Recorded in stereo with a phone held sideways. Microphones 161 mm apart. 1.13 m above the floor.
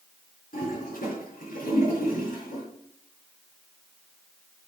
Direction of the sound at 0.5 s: 65° left (ahead or behind).